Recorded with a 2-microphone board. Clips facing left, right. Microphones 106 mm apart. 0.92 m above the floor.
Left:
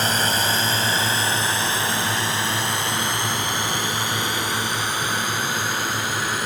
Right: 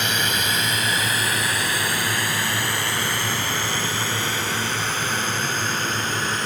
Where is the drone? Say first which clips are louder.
Left 3 dB; 35° left (ahead or behind); by 6.5 s 10° left (ahead or behind).